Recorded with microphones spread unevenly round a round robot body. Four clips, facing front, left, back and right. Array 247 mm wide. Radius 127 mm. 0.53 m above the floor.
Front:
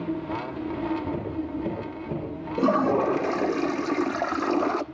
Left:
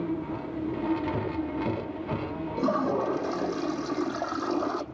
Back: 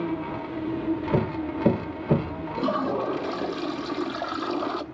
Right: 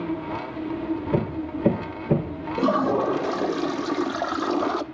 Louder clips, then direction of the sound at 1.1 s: Right 4 dB, back 4 dB; 135° right.